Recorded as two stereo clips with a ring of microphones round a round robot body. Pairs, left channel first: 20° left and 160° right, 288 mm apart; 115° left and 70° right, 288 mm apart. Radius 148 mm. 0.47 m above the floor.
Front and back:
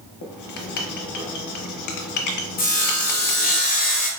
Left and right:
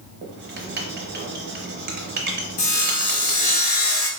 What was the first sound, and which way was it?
Writing, 10° right.